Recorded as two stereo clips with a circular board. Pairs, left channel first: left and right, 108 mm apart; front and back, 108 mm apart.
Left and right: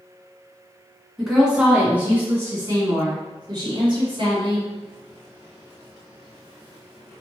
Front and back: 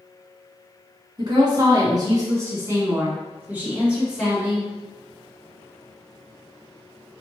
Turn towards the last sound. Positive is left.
turn(degrees=-95)